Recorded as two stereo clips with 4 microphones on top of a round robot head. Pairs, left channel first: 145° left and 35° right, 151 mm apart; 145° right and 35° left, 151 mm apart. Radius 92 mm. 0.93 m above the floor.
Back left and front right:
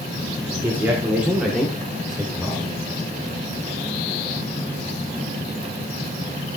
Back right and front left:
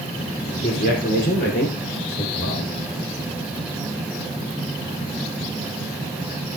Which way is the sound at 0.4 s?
110° right.